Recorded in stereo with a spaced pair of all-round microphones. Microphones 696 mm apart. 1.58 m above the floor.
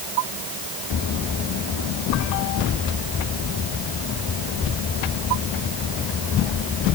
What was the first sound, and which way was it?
Only background noise.